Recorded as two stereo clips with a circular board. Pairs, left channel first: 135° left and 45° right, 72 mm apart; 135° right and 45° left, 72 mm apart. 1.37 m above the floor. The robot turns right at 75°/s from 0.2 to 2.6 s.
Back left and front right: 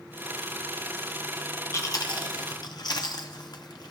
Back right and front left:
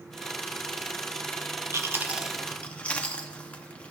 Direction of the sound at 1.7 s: 85° left.